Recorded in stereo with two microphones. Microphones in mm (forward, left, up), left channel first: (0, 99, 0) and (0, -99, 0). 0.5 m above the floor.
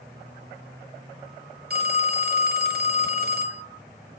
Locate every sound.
1.7 s a phone ringing: 50° right (ahead or behind), 0.9 m